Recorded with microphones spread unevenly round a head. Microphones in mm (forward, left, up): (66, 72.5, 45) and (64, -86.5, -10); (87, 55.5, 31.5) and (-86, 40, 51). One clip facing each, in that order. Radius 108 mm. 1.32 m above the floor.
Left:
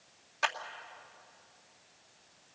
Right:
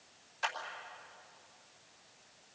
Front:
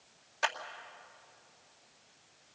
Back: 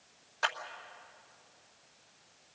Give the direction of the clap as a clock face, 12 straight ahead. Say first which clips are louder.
Left 4 dB, front 1 dB; 10 o'clock.